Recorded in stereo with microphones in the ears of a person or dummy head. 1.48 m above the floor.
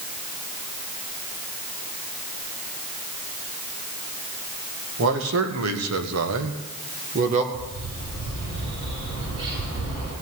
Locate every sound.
5.0 s a man speaking: 60° right (ahead or behind), 1.9 m; by 7.4 s 35° right (ahead or behind), 1.6 m
7.5 s a bird: 85° right, 9 m